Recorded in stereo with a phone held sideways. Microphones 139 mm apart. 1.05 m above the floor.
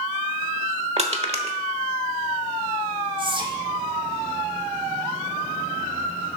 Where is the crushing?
45° right (ahead or behind), 1.0 m.